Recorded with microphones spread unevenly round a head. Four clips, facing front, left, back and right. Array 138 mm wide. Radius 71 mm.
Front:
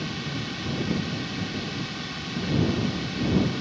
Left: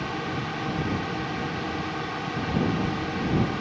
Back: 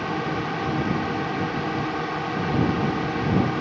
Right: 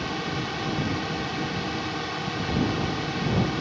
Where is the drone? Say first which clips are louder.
Even, back 7 dB; straight behind.